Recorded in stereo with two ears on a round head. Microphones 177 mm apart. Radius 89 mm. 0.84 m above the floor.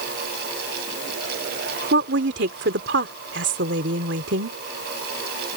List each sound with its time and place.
1.9 s a woman speaking: 60° right (ahead or behind)